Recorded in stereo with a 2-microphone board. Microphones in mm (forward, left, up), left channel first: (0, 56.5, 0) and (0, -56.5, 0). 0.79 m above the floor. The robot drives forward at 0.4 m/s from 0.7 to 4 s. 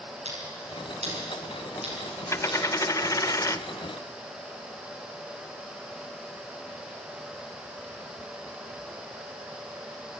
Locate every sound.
0.2 s scissors: 80° right, 8 m; by 2.6 s 75° right (ahead or behind), 8 m
2.3 s a dropped coin: 25° left (ahead or behind), 0.6 m